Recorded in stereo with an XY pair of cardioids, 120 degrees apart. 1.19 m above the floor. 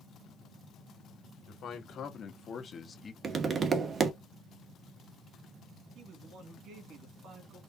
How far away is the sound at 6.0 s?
About 2 m.